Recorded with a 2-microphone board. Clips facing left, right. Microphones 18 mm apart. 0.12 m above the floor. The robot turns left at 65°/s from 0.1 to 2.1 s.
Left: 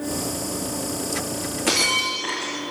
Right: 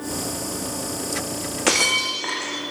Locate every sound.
1.7 s breaking glass: 45° right (ahead or behind), 2.5 m; by 2.6 s 20° right (ahead or behind), 2.5 m